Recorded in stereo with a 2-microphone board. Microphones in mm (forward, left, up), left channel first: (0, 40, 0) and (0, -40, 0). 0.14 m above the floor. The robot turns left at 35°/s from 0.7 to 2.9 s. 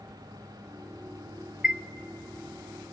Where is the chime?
10° right (ahead or behind), 0.7 m; by 1.8 s 15° right (ahead or behind), 0.7 m.